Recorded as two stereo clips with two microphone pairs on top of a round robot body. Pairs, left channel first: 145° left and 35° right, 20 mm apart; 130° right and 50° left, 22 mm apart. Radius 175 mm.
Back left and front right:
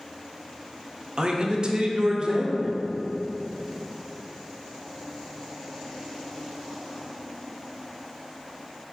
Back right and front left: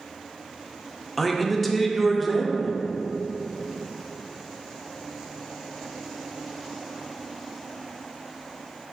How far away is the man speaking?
About 0.7 m.